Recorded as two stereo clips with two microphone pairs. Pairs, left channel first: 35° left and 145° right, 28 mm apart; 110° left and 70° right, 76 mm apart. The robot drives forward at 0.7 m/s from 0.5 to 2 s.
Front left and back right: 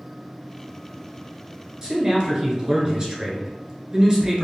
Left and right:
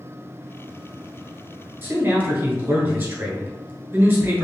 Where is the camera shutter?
I don't hear a camera shutter.